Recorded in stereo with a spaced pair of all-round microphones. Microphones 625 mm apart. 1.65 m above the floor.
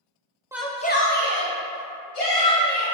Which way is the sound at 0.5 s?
5° right (ahead or behind).